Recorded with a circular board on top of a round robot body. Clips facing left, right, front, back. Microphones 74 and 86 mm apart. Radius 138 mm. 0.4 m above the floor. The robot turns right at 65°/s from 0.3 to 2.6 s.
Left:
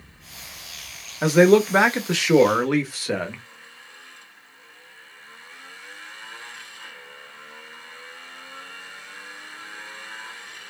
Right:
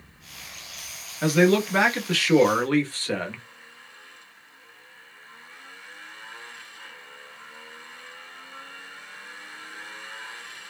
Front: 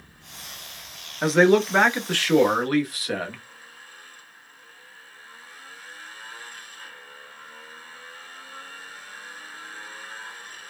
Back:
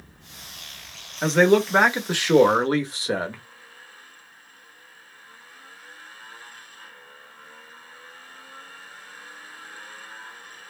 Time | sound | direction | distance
1.2 | a man speaking | 70° left | 1.0 m